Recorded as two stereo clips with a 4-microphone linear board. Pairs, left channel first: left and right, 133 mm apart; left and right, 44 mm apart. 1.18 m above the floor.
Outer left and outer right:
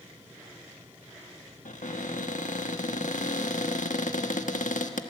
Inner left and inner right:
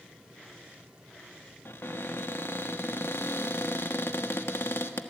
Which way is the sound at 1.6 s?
70° left (ahead or behind).